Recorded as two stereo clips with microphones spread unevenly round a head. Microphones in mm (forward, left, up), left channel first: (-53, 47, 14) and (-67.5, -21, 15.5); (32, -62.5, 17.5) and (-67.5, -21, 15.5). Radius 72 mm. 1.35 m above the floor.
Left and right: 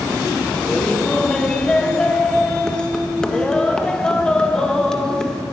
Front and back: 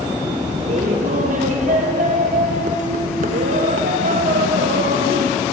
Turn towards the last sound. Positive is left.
turn(degrees=160)